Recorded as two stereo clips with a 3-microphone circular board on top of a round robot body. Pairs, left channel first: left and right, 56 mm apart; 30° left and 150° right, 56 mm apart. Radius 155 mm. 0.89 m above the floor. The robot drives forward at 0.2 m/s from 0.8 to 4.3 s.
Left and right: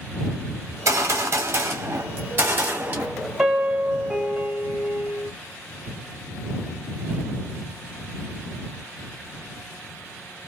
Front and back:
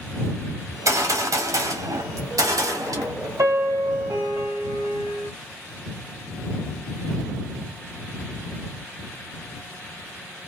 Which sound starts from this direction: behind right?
A gunshot, at 0.7 s.